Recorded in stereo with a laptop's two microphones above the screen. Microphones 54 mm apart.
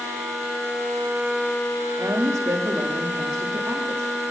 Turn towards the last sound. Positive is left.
turn(degrees=-70)  # may be behind; listen again after turning